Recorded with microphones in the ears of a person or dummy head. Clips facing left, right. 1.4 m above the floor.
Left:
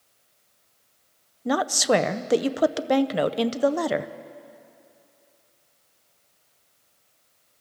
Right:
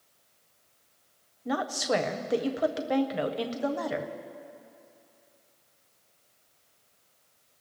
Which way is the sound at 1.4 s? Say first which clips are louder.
Left 6 dB; 65° left (ahead or behind).